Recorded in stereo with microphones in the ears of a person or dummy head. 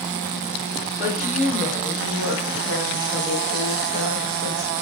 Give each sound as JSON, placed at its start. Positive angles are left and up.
{"t": 1.0, "sound": "a woman speaking", "side_deg": 0, "distance_m": 2.5}